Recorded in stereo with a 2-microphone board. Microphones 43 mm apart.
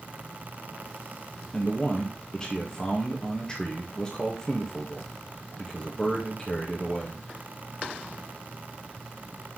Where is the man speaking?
20° left (ahead or behind), 1.7 m.